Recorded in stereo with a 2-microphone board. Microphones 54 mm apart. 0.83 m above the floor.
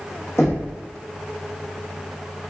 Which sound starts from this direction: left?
Knocking, at 0.4 s.